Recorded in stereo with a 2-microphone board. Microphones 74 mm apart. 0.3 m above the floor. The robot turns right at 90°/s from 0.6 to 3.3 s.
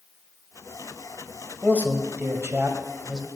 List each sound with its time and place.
1.6 s a man speaking: 155° right, 1.2 m; by 3.3 s 10° right, 1.2 m